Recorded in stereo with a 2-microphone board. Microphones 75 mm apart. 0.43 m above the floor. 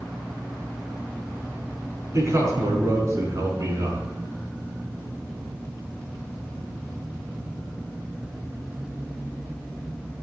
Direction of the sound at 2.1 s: 45° right (ahead or behind).